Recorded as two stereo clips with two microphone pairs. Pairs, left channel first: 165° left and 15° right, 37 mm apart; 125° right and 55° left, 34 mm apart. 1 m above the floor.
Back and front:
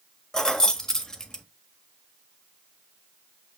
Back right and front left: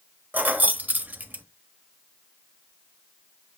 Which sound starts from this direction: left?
Keys jangling, at 0.3 s.